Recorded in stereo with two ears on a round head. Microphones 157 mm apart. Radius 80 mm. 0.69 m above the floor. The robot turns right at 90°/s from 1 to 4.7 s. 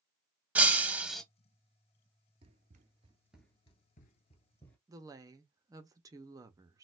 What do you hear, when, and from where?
0.6 s breaking glass: 10° right (ahead or behind), 0.5 m; by 1.2 s 5° left (ahead or behind), 0.5 m
2.4 s running footsteps: 30° right (ahead or behind), 0.9 m; by 4.8 s 5° left (ahead or behind), 1.1 m
4.9 s a woman speaking: 20° right (ahead or behind), 0.6 m